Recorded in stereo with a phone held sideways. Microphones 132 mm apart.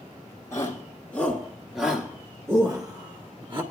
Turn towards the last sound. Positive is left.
turn(degrees=-40)  # may be behind; listen again after turning